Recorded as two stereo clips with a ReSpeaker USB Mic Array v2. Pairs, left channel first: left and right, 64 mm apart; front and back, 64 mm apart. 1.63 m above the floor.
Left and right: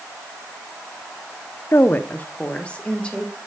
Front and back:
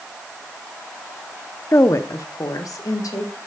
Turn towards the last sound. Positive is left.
turn(degrees=15)